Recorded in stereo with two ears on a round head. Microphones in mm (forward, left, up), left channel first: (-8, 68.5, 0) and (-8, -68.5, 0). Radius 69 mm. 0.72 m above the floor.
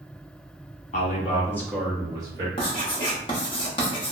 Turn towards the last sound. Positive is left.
turn(degrees=35)  # may be behind; listen again after turning